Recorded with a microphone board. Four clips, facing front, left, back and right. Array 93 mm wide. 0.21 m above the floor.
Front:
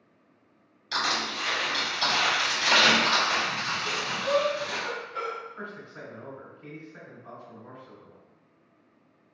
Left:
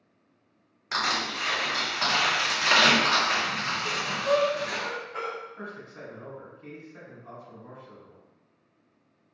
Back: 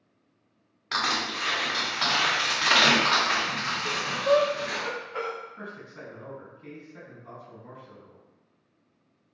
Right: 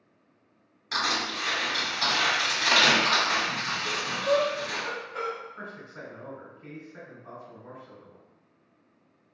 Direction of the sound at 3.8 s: 145° left.